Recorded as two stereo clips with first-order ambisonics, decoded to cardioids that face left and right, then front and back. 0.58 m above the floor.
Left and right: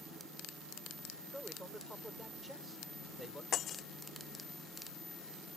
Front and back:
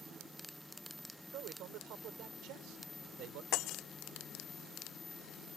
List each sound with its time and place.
1.3 s a man speaking: 175° right
3.5 s breaking glass: 35° left